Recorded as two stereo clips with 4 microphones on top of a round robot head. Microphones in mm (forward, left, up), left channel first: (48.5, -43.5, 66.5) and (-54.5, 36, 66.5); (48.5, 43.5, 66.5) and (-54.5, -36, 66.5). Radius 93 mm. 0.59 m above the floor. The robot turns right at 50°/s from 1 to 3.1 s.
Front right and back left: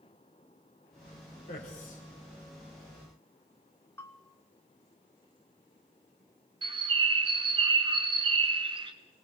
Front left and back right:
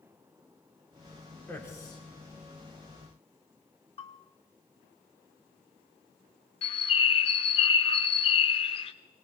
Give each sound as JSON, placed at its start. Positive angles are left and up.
{"t": 1.5, "sound": "a man speaking", "azimuth_deg": -40, "distance_m": 4.0}
{"t": 4.0, "sound": "a bell", "azimuth_deg": 30, "distance_m": 1.2}
{"t": 6.6, "sound": "a bird", "azimuth_deg": 90, "distance_m": 0.6}